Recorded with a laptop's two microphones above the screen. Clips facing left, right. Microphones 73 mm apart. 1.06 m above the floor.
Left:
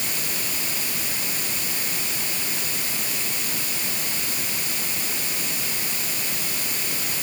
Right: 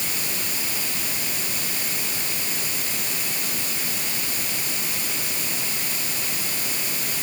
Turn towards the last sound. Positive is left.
No sound to turn to.